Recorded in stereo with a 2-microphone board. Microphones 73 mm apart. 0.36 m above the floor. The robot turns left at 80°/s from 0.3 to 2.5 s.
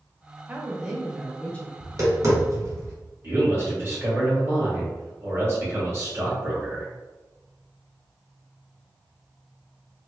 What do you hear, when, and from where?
0.5 s a woman speaking: 130° right, 0.9 m; by 1.7 s 130° left, 0.9 m
1.8 s tapping: 35° right (ahead or behind), 1.7 m; by 3.0 s 45° right (ahead or behind), 1.7 m
3.2 s a man speaking: 35° right (ahead or behind), 1.9 m